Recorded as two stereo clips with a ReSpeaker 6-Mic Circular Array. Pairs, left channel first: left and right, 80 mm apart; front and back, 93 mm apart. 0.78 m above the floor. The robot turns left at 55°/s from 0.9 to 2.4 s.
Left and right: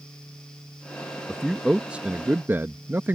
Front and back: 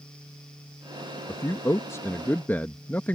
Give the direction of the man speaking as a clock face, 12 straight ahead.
12 o'clock.